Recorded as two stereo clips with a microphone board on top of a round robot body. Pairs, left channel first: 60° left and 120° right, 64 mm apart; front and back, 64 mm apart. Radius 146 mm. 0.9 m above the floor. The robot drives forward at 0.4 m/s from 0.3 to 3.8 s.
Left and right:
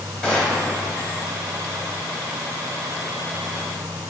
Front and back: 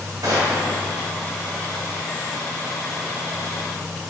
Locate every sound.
0.2 s a gunshot: 140° left, 2 m